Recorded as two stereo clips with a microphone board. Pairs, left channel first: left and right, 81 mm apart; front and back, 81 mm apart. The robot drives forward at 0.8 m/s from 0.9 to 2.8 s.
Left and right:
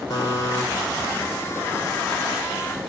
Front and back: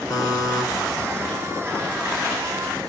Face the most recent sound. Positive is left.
turn(degrees=115)